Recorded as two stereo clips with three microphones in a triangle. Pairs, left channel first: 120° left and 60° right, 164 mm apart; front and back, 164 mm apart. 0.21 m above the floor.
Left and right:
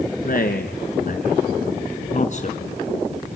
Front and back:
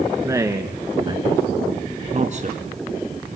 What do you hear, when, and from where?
0.2 s a man speaking: 110° left, 2.5 m; by 2.6 s 155° left, 2.0 m